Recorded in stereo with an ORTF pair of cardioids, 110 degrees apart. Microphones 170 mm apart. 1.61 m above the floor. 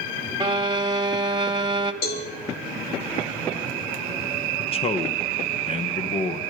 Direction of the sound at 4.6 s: 35° left.